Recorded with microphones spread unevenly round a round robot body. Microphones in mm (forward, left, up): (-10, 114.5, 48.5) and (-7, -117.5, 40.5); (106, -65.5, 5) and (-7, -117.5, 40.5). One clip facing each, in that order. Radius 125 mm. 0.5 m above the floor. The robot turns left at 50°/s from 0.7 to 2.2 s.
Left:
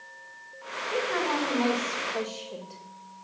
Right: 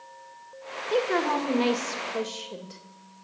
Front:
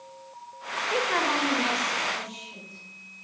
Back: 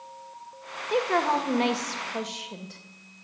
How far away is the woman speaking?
About 1.9 m.